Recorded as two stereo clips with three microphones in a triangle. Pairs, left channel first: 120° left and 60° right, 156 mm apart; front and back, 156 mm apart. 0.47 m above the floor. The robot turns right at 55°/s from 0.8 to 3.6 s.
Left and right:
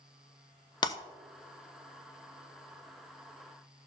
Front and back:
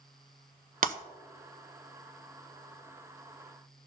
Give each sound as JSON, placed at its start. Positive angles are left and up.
{"t": 0.8, "sound": "breaking glass", "azimuth_deg": 175, "distance_m": 0.7}